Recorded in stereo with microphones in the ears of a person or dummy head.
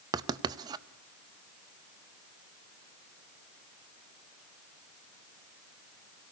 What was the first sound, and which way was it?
Writing, 25° right (ahead or behind).